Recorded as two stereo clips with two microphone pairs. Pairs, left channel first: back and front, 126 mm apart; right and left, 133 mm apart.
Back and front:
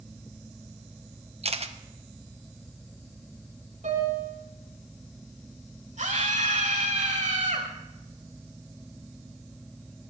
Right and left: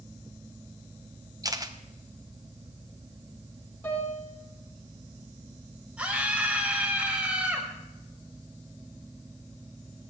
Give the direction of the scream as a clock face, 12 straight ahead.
12 o'clock.